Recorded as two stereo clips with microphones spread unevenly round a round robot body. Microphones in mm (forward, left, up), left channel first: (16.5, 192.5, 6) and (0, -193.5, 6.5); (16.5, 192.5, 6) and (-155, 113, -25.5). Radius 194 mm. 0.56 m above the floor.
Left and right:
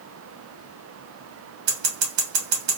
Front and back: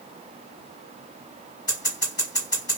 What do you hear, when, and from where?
1.7 s scissors: 60° right, 1.2 m